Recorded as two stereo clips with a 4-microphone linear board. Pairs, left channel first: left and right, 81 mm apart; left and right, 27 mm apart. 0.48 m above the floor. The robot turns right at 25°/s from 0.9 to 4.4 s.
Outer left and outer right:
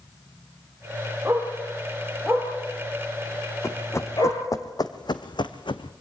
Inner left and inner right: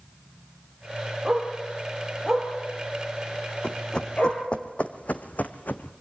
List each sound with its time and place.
1.2 s a dog barking: 20° right (ahead or behind), 5.5 m; by 4.4 s 60° left (ahead or behind), 5.5 m
3.6 s running footsteps: 35° left (ahead or behind), 1.6 m; by 5.9 s 75° left (ahead or behind), 1.7 m